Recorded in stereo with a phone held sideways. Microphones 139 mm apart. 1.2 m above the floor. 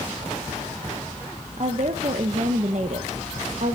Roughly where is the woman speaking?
Right.